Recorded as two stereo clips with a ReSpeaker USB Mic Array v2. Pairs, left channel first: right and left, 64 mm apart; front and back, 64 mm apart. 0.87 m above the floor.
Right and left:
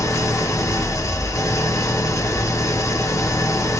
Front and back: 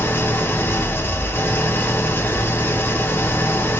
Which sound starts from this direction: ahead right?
An engine running, at 0.0 s.